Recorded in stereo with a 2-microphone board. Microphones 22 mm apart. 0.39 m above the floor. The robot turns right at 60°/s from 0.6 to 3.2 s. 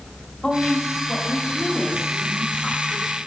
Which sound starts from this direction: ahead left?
A woman speaking, at 0.4 s.